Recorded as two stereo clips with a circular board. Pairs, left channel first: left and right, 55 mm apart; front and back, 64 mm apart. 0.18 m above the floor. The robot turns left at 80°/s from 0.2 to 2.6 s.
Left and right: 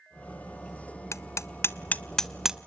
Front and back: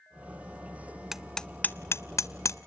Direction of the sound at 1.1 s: 100° left.